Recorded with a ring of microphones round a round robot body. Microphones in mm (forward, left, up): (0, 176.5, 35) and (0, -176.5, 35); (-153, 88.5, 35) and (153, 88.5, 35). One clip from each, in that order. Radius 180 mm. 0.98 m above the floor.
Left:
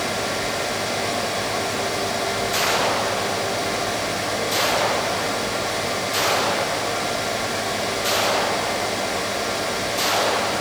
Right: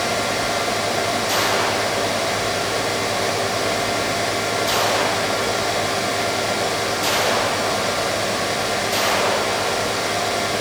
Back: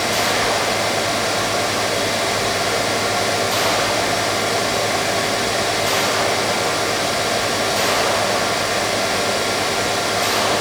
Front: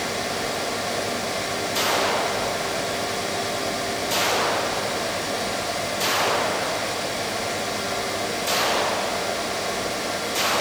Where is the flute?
No flute in this recording.